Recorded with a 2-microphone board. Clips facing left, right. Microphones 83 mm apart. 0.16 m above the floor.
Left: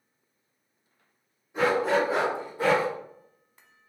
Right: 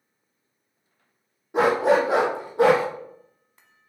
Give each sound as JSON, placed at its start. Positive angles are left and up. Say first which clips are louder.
{"t": 1.5, "sound": "a dog barking", "louder": "right 5 dB", "side_deg": -80, "distance_m": 1.6}